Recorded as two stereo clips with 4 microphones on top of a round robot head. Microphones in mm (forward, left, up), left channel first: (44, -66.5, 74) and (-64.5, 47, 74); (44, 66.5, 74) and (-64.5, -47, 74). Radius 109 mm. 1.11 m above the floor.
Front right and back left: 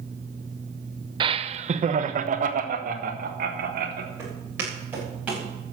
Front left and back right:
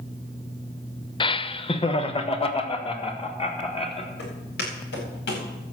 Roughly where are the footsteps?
Ahead left.